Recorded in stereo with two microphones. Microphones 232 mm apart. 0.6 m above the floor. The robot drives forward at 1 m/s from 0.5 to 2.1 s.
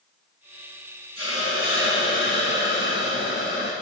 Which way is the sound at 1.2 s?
70° left (ahead or behind).